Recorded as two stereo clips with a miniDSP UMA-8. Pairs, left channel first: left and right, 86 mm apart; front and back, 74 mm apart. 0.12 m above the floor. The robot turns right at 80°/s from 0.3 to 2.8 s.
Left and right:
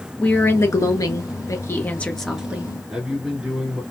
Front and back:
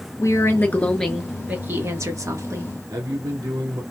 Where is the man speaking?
175° right, 3.5 m.